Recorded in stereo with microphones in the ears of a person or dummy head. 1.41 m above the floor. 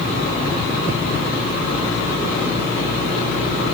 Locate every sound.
Only background noise.